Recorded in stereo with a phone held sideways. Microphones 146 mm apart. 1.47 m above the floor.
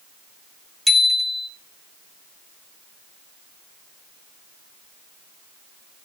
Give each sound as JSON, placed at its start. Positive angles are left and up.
{"t": 0.9, "sound": "a bicycle bell", "side_deg": 0, "distance_m": 2.5}